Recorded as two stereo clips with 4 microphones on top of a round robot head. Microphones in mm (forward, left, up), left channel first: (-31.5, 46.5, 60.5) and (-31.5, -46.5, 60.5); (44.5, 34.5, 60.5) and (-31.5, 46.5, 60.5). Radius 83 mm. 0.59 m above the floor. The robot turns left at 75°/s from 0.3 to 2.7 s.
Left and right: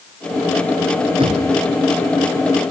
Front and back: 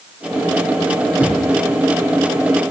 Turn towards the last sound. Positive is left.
turn(degrees=135)